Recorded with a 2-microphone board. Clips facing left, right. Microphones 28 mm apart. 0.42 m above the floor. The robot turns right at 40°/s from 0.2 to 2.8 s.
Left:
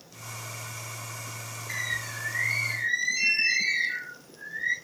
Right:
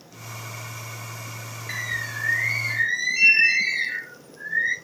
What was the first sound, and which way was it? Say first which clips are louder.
A bird: right 3 dB; 120° right.